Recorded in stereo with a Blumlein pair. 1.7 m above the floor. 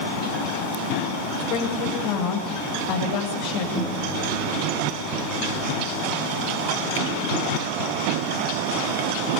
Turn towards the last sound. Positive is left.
turn(degrees=-5)